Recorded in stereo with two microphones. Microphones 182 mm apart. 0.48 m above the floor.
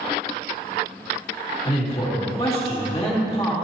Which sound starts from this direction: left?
A man speaking, at 1.6 s.